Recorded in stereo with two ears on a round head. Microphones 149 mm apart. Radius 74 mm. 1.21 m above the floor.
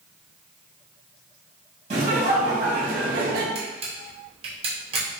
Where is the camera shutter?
35° right (ahead or behind), 1.1 m.